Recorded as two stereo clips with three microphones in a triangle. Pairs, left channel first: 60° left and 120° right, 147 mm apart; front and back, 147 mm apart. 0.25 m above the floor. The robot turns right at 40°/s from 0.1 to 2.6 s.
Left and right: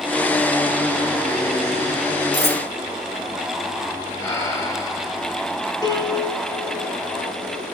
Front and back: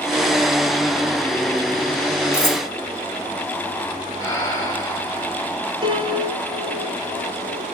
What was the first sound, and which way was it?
Cutlery clinking, 70° right.